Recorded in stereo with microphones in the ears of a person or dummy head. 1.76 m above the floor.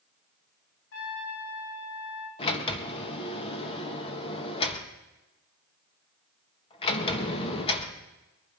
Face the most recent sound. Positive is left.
turn(degrees=30)  # may be behind; listen again after turning